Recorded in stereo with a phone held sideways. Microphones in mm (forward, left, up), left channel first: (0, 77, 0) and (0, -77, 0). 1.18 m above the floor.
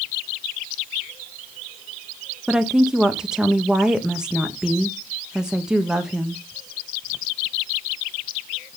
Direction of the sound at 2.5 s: 5° right (ahead or behind).